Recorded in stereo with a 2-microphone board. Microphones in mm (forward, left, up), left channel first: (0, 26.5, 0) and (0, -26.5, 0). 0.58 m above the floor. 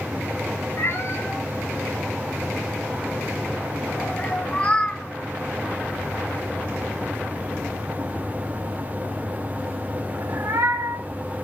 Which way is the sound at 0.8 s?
50° left (ahead or behind).